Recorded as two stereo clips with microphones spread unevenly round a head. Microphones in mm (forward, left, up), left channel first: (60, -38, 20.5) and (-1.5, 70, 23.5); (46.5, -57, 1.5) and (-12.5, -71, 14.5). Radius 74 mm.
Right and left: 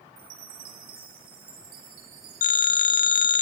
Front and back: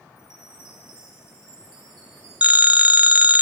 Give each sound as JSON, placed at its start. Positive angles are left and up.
{"t": 0.2, "sound": "a chime", "azimuth_deg": 135, "distance_m": 3.0}
{"t": 2.4, "sound": "a phone ringing", "azimuth_deg": -100, "distance_m": 1.1}